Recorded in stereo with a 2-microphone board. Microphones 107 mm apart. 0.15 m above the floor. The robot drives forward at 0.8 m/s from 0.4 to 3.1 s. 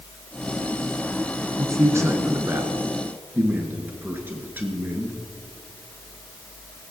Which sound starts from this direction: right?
A man speaking, at 1.6 s.